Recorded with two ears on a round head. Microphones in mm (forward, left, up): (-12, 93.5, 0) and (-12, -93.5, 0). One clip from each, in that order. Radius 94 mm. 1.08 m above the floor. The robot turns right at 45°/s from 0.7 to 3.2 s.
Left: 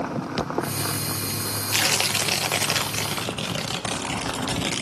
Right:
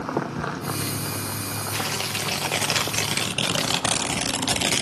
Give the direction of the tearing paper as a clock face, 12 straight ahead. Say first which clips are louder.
Left 6 dB; 8 o'clock.